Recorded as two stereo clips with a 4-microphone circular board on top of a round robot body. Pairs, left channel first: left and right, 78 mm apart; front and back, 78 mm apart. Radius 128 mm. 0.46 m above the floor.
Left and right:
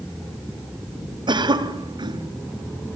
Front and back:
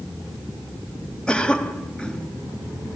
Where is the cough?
80° right, 4 m.